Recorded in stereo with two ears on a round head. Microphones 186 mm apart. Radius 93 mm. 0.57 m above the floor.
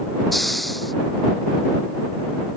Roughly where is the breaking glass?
I don't hear breaking glass.